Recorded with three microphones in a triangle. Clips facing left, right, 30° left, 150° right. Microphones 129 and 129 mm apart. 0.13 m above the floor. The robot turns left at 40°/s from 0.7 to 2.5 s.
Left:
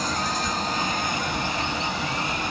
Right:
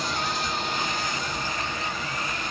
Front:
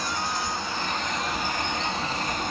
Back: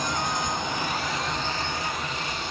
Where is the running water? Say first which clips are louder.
Left 2 dB, back 2 dB; 140° left, 1.2 m; by 2.5 s 65° left, 1.2 m.